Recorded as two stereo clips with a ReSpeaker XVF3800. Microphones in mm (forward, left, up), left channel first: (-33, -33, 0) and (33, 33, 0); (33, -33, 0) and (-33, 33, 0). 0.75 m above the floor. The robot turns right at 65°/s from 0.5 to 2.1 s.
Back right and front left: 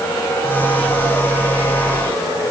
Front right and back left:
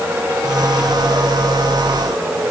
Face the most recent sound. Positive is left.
No sound to turn to.